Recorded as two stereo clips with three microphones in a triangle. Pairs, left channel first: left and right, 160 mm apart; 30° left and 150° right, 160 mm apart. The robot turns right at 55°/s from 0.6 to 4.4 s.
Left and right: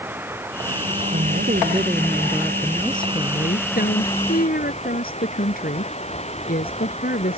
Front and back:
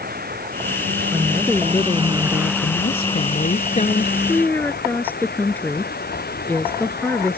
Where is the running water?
165° right; by 7.4 s 40° left.